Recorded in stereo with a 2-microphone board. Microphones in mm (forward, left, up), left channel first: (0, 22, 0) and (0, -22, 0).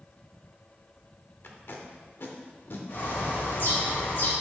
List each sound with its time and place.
1.4 s tape being pulled: 55° left (ahead or behind), 0.9 m
2.9 s a bird: 55° left (ahead or behind), 2.5 m